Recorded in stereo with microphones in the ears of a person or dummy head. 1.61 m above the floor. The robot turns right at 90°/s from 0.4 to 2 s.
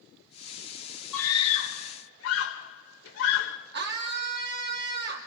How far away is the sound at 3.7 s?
About 3.5 m.